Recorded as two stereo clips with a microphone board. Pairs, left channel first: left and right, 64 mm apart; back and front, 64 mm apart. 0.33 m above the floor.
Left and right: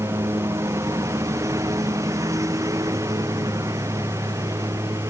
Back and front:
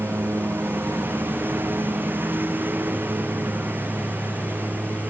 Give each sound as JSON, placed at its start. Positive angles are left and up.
{"t": 0.0, "sound": "a lawn mower", "azimuth_deg": -55}